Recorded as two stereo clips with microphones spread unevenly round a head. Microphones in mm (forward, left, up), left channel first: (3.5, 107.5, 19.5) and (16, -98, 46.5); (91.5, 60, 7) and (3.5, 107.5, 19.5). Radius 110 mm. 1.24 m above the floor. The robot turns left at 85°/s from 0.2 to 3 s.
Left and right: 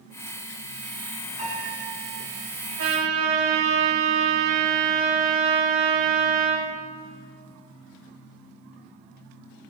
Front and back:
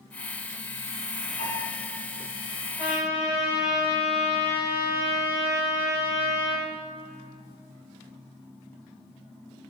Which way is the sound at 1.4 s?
25° right.